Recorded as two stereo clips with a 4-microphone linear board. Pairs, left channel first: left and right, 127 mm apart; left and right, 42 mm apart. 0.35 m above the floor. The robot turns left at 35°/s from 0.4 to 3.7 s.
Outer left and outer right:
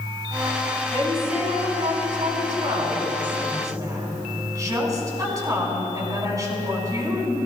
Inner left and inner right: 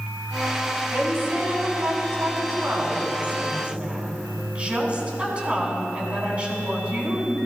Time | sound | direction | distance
0.9 | a woman speaking | 55° right | 3.5 m